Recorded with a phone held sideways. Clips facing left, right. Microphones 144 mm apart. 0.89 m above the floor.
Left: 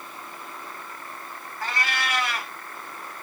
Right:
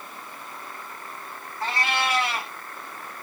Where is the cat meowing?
30° right (ahead or behind), 1.1 m.